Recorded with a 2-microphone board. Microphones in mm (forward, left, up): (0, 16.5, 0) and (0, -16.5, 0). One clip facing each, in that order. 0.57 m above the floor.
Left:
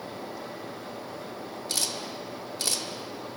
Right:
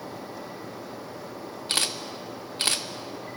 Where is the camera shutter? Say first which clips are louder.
Right 5 dB; 45° right (ahead or behind), 0.5 m.